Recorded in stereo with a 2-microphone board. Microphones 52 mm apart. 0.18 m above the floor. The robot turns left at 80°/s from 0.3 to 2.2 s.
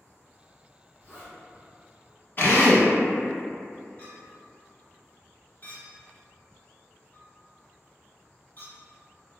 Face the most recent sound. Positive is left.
turn(degrees=40)  # may be behind; listen again after turning